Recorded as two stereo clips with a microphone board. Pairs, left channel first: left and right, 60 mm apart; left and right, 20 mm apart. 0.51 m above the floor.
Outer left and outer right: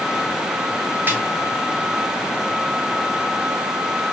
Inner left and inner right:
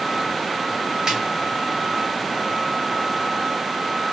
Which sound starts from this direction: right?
A snare drum, at 1.1 s.